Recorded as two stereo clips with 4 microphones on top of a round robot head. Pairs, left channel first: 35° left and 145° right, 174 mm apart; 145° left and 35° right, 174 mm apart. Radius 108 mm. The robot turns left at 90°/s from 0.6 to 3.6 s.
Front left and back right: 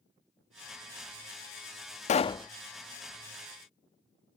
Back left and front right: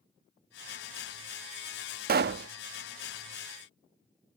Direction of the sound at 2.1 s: 10° right.